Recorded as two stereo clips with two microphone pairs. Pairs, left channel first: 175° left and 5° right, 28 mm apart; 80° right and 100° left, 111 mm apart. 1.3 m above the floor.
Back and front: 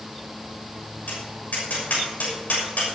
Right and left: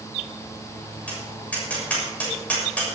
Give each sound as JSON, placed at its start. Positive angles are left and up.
{"t": 1.1, "sound": "tapping", "azimuth_deg": -160, "distance_m": 6.5}